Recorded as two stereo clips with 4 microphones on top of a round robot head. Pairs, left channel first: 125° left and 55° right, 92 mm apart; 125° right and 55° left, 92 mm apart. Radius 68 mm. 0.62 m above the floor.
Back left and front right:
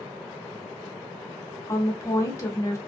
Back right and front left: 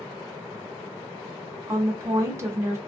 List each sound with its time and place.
1.7 s a woman speaking: 90° left, 1.1 m